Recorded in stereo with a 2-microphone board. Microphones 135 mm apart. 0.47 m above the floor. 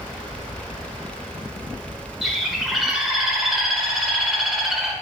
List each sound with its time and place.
2.2 s a bird: centre (ahead or behind), 1.6 m